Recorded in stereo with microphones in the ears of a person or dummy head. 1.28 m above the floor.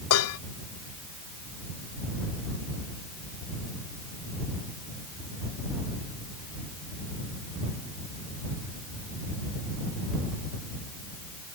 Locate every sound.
0.1 s dishes clattering: 85° left